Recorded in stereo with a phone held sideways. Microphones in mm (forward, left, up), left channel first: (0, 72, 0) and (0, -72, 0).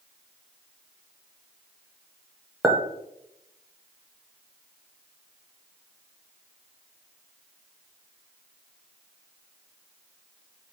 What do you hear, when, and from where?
2.6 s a clink: 5° right (ahead or behind), 0.6 m